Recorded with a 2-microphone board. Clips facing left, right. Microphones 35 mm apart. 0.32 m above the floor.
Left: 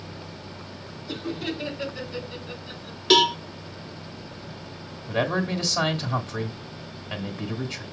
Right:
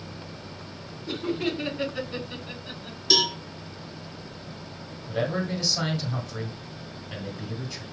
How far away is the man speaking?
About 1.9 m.